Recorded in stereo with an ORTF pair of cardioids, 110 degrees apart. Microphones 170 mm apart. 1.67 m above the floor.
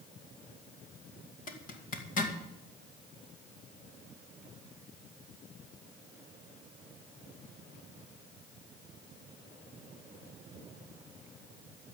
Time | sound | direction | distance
1.5 | a zipper | 50° left | 2 m